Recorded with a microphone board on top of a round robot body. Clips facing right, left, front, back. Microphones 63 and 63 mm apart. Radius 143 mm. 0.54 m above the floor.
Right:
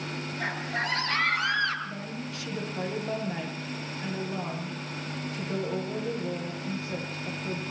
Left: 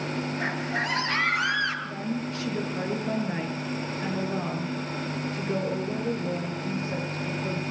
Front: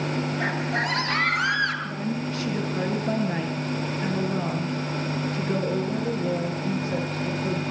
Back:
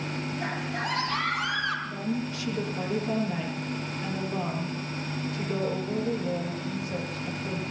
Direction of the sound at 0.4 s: 25° left.